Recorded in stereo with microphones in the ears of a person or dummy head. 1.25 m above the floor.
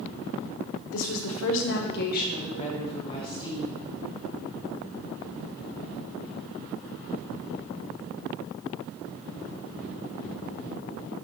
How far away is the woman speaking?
About 1.0 m.